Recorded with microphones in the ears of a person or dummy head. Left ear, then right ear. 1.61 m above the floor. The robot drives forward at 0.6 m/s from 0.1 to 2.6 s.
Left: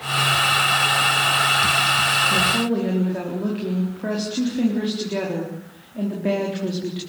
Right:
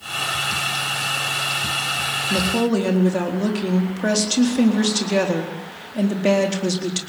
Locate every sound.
2.3 s a woman speaking: 80° right, 4 m; by 7.0 s 85° right, 4 m